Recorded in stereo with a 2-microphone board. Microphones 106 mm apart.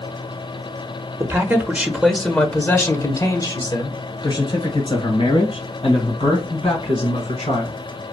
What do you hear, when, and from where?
1.2 s a man speaking: 25° right (ahead or behind), 1.2 m; by 7.8 s 70° left (ahead or behind), 3.5 m